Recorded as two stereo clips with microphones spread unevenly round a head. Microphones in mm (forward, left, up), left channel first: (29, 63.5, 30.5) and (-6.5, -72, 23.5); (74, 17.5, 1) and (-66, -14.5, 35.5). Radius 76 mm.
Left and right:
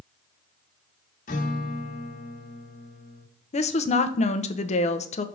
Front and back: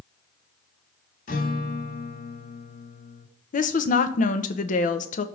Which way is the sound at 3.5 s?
35° left.